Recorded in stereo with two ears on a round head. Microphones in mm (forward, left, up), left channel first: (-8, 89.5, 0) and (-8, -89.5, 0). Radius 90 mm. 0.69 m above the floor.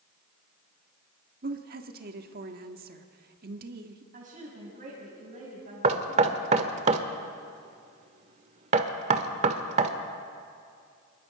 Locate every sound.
1.4 s a woman speaking: 45° right (ahead or behind), 1.5 m
4.1 s a woman speaking: 45° right (ahead or behind), 5 m
5.8 s knocking: 35° right (ahead or behind), 1.3 m